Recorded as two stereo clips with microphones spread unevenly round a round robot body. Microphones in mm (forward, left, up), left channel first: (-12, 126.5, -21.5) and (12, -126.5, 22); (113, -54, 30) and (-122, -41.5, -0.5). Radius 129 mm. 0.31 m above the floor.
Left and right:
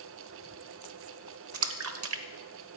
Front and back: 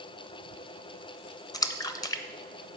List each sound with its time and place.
1.5 s a splash: 80° right, 0.9 m